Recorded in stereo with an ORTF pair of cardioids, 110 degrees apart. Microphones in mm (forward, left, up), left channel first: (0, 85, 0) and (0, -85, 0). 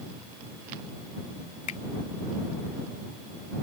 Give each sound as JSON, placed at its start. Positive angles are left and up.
{"t": 1.7, "sound": "a finger snap", "azimuth_deg": 50}